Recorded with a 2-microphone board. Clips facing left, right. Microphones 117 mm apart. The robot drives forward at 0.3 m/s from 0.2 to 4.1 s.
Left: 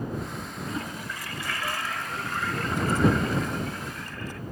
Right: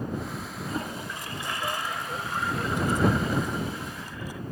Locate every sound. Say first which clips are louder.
0.7 s a toilet flushing: right 2 dB; 30° right (ahead or behind), 0.7 m; by 4.4 s 10° right (ahead or behind), 1.6 m